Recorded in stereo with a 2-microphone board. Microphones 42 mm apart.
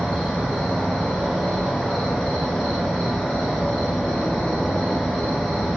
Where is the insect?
5° left (ahead or behind), 2 m.